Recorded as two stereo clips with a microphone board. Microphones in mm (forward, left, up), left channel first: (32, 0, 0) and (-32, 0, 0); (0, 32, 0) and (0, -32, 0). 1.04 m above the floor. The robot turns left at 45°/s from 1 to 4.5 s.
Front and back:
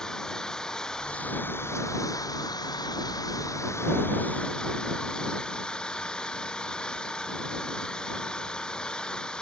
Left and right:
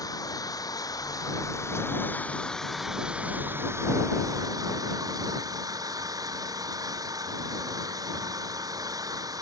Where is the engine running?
80° left; by 9.4 s 75° right.